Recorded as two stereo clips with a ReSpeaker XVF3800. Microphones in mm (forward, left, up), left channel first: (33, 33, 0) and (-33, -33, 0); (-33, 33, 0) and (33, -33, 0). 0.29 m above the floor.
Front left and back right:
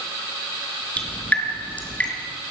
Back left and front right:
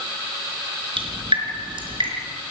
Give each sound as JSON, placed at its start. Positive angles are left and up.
{"t": 1.0, "sound": "dripping", "azimuth_deg": -25, "distance_m": 4.0}